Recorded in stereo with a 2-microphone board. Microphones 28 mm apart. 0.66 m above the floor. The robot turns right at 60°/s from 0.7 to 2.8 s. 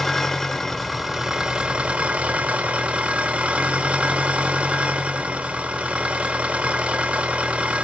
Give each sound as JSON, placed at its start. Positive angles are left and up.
{"t": 0.0, "sound": "an engine running", "azimuth_deg": 175, "distance_m": 1.1}